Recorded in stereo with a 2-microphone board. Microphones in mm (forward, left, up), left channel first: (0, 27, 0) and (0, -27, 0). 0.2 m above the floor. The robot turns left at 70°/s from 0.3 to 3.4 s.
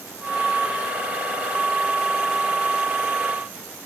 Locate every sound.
Only background noise.